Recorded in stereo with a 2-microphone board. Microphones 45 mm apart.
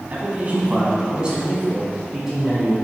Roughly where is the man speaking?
Right.